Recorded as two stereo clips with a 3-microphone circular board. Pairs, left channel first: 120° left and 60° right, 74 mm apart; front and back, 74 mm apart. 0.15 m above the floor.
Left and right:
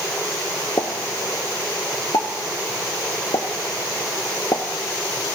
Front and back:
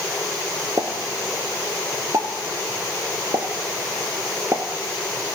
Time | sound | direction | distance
0.8 | a pop | 145° left | 0.6 m